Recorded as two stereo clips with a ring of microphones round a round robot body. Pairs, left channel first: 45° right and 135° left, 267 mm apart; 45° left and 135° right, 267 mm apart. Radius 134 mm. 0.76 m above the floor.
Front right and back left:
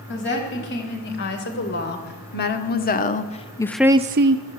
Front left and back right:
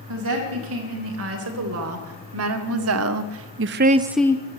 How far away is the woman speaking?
About 4 m.